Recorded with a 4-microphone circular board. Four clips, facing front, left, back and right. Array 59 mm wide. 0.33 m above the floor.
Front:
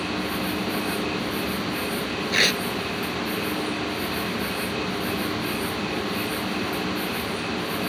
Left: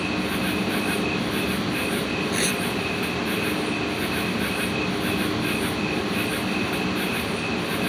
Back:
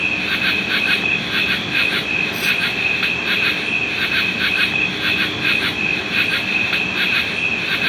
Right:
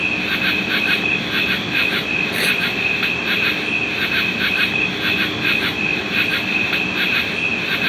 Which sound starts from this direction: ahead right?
Tearing paper, at 2.3 s.